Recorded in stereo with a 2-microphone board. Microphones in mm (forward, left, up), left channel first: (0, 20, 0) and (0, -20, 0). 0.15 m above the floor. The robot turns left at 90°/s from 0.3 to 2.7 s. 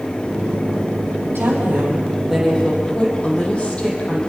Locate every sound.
1.4 s a woman speaking: 90° right, 6.5 m; by 4.2 s 150° left, 6.5 m